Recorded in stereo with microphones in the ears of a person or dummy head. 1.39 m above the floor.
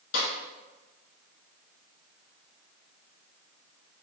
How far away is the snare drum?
About 1.6 m.